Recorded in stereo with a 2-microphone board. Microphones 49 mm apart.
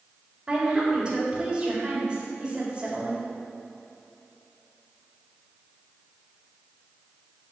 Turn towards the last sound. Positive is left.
turn(degrees=-20)  # may be behind; listen again after turning